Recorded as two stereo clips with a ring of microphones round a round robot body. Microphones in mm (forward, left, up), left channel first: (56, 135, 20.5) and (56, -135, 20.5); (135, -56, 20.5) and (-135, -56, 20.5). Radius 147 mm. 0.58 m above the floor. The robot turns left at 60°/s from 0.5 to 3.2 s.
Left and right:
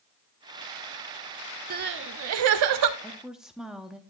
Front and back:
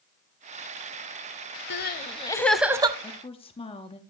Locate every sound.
1.7 s crying: 40° right, 0.6 m; by 2.9 s 110° right, 0.6 m
3.0 s a woman speaking: 5° left, 0.7 m; by 4.0 s 5° right, 0.7 m